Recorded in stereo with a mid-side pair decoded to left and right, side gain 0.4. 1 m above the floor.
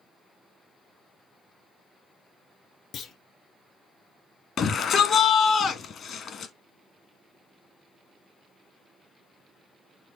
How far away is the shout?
About 1.4 m.